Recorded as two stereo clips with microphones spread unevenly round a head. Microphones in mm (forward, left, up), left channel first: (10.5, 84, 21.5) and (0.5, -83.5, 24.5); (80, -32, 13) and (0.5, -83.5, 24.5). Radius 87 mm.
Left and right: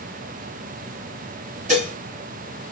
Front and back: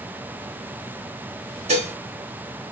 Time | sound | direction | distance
1.7 | dishes clattering | 145° right | 1.6 m